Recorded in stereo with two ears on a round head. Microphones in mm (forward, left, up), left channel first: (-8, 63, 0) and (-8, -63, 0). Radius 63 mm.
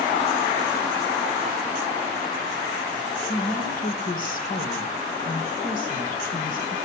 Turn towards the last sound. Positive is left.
turn(degrees=65)  # may be behind; listen again after turning